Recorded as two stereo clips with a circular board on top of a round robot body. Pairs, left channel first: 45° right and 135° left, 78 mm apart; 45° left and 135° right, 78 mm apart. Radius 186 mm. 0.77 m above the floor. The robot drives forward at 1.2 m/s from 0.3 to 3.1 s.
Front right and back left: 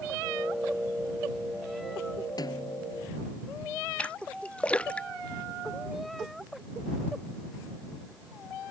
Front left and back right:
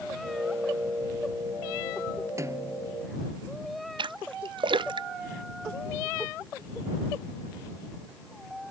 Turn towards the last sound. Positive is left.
turn(degrees=-120)